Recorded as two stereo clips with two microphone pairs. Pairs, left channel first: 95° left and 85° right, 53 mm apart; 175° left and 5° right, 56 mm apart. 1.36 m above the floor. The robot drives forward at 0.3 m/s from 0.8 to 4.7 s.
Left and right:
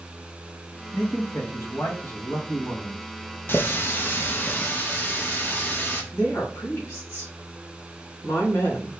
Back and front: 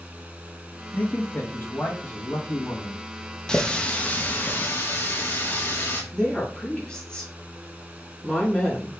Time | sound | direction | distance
0.9 | a man speaking | 120° left | 1.7 m
3.5 | a running tap | 105° left | 0.7 m
6.1 | a woman speaking | 100° left | 2.5 m